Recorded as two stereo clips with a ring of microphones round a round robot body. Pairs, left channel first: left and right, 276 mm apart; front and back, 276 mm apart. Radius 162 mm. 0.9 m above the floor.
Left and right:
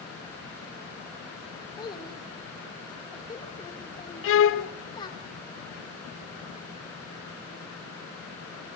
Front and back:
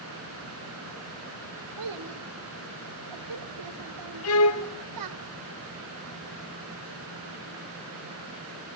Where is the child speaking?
165° left, 2.5 m.